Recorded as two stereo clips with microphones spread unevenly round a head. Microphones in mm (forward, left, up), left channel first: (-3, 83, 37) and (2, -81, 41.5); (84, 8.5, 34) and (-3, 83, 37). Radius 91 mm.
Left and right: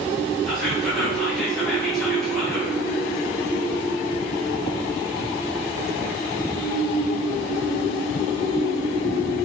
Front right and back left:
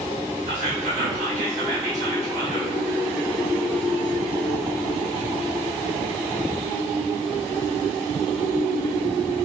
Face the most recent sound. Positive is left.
turn(degrees=180)